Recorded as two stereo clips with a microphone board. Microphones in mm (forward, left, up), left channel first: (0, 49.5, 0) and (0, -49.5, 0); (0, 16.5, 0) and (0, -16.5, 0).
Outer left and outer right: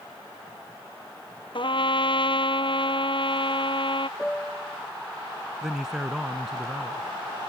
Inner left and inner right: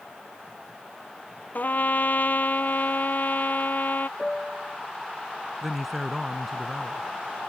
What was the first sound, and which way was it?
A trumpet, 55° left (ahead or behind).